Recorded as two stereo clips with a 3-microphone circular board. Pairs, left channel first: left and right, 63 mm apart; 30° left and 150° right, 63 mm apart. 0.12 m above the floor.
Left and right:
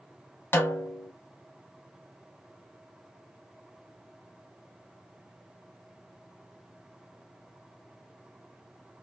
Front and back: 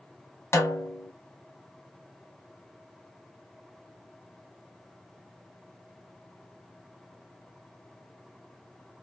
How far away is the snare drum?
About 1.2 m.